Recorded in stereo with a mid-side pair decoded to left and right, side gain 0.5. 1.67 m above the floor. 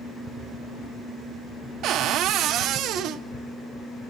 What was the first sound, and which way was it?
A cupboard door, 70° right.